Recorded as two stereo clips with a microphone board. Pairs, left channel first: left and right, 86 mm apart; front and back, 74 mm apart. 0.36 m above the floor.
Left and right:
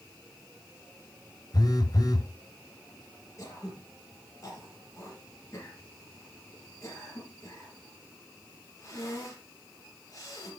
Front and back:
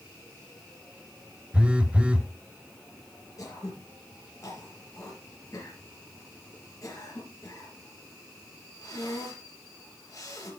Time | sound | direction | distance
1.5 | a phone buzzing | 110° left | 1.1 m
3.4 | throat clearing | 40° left | 4.5 m